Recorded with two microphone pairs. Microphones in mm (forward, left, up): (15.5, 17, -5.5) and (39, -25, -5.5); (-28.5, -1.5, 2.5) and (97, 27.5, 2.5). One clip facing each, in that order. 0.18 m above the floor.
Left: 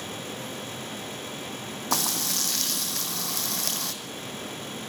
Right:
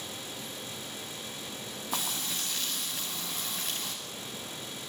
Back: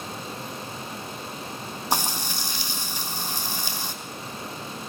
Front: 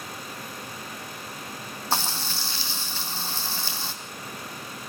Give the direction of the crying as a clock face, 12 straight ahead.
I don't hear crying.